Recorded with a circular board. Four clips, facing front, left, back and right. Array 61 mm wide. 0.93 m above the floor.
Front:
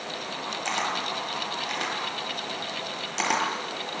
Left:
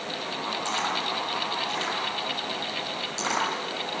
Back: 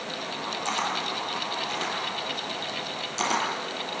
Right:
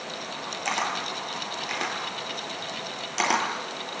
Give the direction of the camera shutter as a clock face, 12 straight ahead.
2 o'clock.